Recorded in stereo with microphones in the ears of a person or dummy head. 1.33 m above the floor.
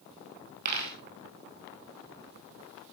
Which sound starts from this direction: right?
A dropped coin, at 0.7 s.